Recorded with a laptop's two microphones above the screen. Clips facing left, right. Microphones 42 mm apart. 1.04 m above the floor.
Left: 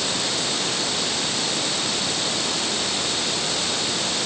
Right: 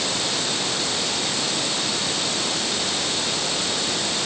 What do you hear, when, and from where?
Only background noise.